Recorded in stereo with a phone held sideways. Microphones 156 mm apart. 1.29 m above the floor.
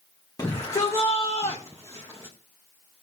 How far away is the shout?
About 1.7 m.